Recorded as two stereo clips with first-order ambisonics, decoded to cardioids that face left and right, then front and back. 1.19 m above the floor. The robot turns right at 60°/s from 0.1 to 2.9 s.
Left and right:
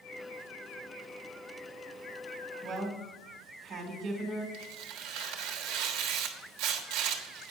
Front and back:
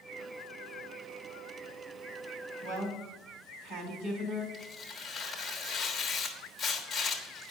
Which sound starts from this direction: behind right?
A woman speaking, at 2.6 s.